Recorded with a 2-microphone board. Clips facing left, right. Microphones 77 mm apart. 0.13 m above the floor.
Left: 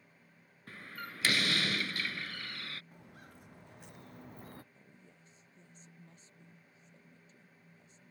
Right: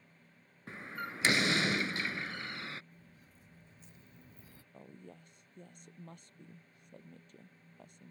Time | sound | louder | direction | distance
0.7 | a door slam | right 4 dB | 25° right (ahead or behind) | ?
2.9 | footsteps | left 6 dB | 90° left | ?
4.7 | a woman speaking | right 8 dB | 70° right (ahead or behind) | ?